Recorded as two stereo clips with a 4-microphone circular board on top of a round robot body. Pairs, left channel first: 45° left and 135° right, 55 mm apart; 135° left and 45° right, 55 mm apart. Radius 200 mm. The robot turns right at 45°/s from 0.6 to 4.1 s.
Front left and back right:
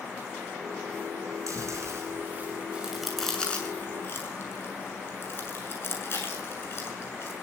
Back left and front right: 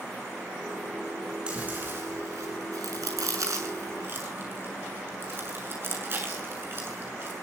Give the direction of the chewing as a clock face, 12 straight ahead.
4 o'clock.